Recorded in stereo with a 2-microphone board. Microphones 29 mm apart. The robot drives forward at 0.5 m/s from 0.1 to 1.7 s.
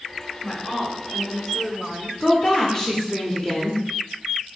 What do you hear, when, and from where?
0.4 s a woman speaking: 10° left (ahead or behind), 1.3 m; by 2.1 s 20° left (ahead or behind), 0.9 m
2.2 s a woman speaking: 20° left (ahead or behind), 0.8 m